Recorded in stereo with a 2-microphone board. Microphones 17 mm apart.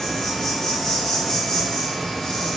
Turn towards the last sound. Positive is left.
turn(degrees=25)  # may be behind; listen again after turning